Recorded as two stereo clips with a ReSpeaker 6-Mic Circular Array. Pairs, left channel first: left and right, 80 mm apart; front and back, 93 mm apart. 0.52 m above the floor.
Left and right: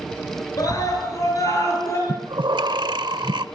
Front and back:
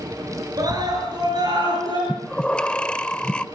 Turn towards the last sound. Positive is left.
turn(degrees=-80)